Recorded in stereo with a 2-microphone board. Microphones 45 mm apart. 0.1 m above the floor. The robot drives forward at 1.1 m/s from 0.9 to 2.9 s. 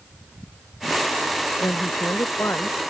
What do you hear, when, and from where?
1.6 s a woman speaking: 75° left (ahead or behind); by 2.8 s 80° left